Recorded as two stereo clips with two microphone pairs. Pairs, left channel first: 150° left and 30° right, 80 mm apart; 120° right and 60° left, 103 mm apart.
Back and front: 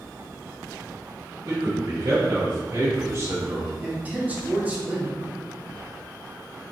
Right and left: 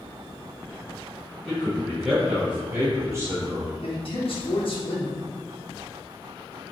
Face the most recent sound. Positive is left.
turn(degrees=-100)